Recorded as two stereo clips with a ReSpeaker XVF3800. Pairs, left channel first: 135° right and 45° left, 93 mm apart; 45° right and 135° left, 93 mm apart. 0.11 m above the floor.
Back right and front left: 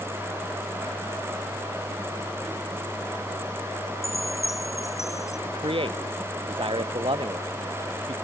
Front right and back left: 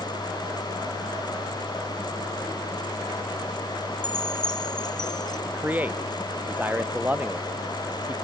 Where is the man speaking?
65° left.